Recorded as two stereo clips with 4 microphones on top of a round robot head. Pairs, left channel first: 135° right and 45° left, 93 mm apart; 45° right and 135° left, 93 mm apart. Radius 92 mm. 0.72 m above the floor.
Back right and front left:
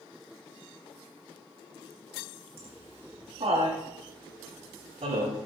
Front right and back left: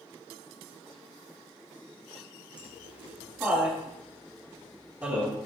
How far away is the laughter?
About 9 m.